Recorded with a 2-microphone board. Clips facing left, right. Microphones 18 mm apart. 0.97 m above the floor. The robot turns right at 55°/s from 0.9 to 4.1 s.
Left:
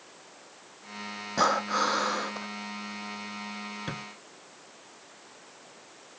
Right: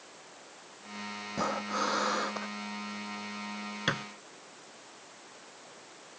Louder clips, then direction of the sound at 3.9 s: Right 10 dB; 45° right (ahead or behind).